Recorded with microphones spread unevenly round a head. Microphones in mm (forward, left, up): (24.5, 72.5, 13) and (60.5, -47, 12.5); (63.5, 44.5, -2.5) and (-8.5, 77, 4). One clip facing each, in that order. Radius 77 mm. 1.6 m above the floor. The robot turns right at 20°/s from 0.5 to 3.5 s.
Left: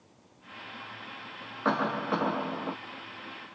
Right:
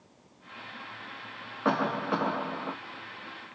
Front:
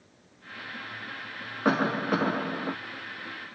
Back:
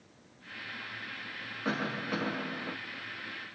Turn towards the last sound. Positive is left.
turn(degrees=45)